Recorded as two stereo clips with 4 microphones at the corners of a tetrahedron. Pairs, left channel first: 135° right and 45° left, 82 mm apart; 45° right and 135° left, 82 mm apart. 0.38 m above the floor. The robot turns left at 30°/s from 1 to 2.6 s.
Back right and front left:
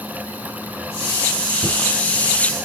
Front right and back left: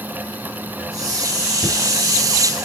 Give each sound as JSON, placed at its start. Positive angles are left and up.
{"t": 1.6, "sound": "knocking", "azimuth_deg": 35, "distance_m": 3.0}